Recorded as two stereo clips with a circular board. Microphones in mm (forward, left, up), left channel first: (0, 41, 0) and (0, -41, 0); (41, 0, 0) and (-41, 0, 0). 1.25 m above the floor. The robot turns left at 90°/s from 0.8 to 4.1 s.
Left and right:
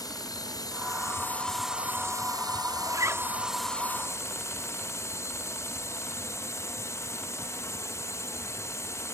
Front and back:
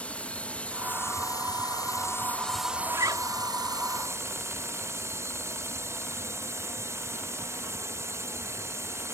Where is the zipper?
125° right; by 3.3 s 160° right.